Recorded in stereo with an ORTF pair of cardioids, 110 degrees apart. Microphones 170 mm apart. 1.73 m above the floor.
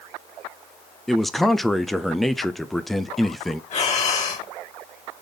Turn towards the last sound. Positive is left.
turn(degrees=45)